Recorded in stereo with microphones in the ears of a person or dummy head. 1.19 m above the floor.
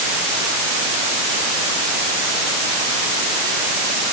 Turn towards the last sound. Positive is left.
No sound to turn to.